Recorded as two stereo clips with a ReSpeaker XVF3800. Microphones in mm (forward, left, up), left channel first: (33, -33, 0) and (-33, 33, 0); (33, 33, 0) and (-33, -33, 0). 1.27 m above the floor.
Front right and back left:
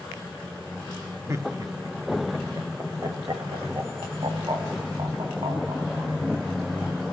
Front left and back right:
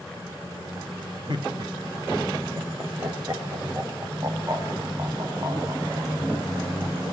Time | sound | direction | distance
1.3 | laughter | 170° right | 2.5 m